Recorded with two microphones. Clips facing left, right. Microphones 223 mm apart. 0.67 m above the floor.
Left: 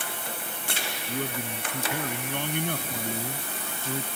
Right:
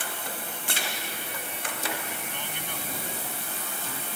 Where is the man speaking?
75° left (ahead or behind); by 4.1 s 40° left (ahead or behind).